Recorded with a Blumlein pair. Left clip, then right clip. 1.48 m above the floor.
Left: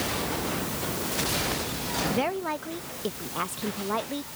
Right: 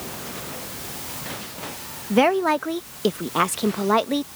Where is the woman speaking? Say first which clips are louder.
Right 15 dB; 30° right.